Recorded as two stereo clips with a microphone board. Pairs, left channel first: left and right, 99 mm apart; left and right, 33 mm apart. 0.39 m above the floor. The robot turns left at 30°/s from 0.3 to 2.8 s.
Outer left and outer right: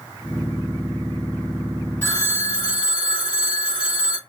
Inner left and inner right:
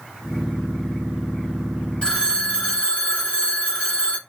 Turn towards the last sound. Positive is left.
turn(degrees=45)  # may be behind; listen again after turning